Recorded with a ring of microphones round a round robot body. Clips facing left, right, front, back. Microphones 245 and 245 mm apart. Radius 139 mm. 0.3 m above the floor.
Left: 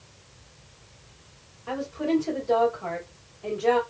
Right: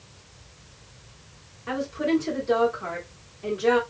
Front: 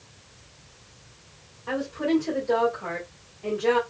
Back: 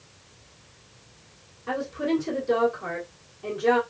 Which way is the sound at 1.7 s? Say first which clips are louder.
Right 1 dB, front 1 dB; 130° right.